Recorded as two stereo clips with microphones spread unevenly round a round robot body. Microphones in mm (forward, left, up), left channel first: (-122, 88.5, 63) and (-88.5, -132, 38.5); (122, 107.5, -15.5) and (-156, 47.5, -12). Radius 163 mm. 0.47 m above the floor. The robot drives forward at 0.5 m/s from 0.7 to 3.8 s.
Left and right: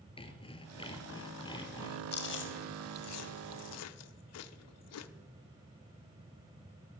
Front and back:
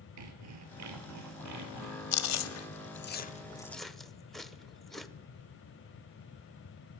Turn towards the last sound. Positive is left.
turn(degrees=100)